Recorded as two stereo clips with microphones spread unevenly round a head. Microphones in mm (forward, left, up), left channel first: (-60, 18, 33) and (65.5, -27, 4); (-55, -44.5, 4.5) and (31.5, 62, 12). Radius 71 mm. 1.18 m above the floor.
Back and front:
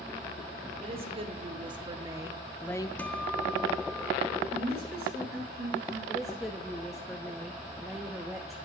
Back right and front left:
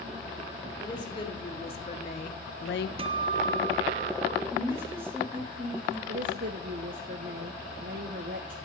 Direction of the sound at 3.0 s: 90° left.